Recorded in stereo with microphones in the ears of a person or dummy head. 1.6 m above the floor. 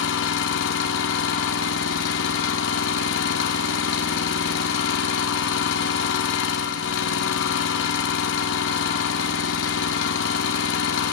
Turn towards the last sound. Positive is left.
turn(degrees=65)  # may be behind; listen again after turning